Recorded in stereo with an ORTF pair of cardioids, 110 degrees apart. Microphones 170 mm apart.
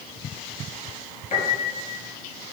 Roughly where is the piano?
Ahead left.